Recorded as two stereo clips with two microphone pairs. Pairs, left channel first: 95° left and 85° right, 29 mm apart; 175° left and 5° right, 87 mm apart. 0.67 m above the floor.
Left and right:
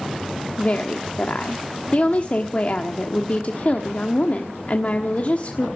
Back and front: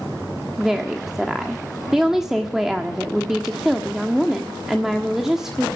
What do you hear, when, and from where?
0.6 s a woman speaking: 80° left, 1.2 m